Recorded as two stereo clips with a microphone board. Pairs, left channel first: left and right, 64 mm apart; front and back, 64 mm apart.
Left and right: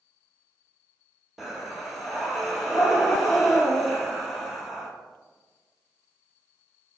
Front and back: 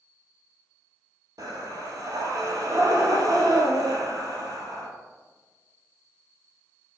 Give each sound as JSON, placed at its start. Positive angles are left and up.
{"t": 1.4, "sound": "breathing", "azimuth_deg": -175, "distance_m": 0.8}